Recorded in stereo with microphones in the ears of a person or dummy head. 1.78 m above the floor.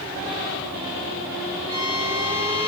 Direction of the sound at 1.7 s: 20° right (ahead or behind).